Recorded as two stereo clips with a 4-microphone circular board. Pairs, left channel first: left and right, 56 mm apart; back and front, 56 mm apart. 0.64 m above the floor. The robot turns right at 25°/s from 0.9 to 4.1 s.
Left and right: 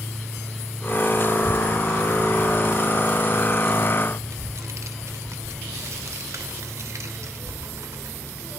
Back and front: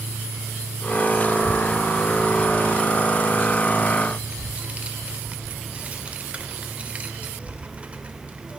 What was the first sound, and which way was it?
A child speaking, 135° right.